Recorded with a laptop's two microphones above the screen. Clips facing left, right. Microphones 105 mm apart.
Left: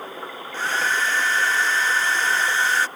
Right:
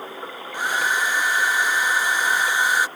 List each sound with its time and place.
0.5 s a hair dryer: 15° right (ahead or behind)